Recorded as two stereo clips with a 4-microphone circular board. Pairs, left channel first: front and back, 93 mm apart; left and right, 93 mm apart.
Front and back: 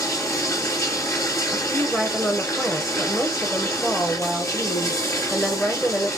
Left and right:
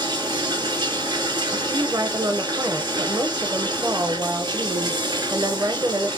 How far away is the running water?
About 2 m.